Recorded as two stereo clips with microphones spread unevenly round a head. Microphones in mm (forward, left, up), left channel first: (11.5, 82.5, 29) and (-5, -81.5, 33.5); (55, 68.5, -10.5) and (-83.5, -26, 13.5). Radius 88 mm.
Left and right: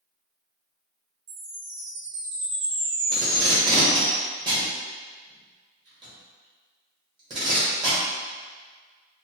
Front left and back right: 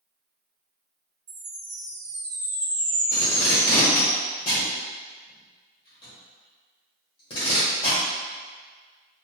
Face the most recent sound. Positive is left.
turn(degrees=-30)